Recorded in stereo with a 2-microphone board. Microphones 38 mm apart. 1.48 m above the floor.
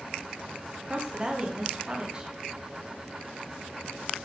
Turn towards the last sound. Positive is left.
turn(degrees=-25)  # may be behind; listen again after turning